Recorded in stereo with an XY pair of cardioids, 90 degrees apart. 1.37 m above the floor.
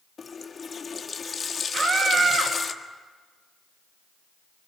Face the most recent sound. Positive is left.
turn(degrees=-55)